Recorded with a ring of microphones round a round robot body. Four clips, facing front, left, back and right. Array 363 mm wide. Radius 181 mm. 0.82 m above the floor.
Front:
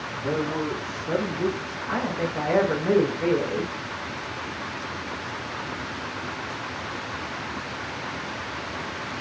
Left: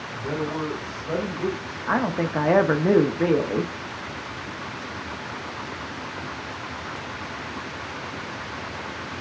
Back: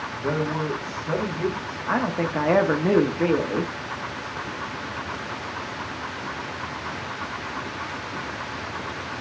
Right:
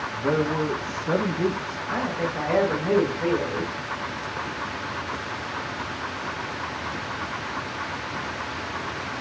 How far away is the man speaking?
About 1.3 m.